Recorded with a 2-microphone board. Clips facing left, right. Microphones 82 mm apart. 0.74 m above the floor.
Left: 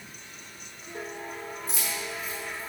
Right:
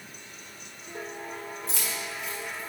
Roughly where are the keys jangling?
Right.